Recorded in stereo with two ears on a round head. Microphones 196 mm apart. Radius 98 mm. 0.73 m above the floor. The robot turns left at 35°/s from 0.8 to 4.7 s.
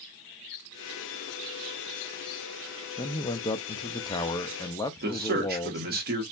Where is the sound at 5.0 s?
45° right (ahead or behind), 1.4 m.